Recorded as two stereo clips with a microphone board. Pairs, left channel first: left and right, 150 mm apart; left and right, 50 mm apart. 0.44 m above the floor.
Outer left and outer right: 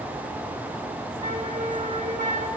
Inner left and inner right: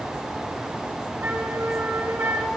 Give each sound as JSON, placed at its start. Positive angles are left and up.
{"t": 1.2, "sound": "a flute", "side_deg": -55, "distance_m": 4.5}